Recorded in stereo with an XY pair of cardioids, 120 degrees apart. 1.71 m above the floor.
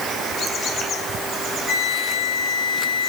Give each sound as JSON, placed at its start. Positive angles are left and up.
{"t": 1.7, "sound": "a flute", "azimuth_deg": 60, "distance_m": 1.7}